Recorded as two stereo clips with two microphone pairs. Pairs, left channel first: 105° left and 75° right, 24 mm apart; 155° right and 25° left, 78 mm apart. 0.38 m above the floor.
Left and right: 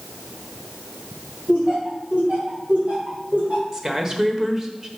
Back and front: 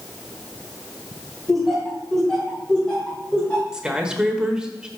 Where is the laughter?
65° right, 3 m; by 3.6 s 85° right, 4 m.